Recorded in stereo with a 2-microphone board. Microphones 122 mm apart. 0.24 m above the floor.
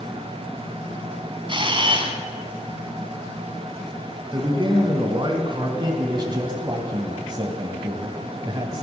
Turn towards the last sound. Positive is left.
turn(degrees=-35)  # may be behind; listen again after turning